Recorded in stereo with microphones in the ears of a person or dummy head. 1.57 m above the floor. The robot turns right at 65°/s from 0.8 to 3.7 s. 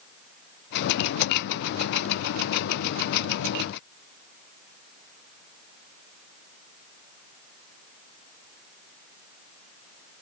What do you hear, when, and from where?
Only background noise.